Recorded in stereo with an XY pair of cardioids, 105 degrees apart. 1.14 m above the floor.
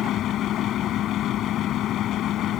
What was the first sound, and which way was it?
A fan, 65° left.